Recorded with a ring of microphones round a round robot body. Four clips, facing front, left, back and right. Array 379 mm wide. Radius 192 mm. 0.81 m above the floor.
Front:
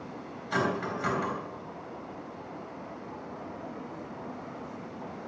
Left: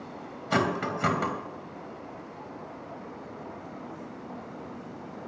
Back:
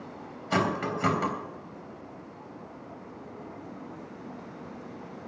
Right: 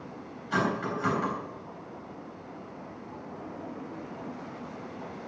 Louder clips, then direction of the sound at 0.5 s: Left 2 dB, back 2 dB; 125° left.